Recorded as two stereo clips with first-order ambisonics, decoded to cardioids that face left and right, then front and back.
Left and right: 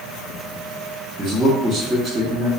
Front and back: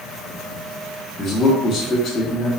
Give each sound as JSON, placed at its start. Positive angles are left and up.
{"t": 1.2, "sound": "a man speaking", "azimuth_deg": -50, "distance_m": 0.9}